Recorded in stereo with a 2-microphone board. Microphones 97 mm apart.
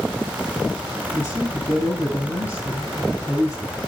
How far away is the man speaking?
About 7.5 m.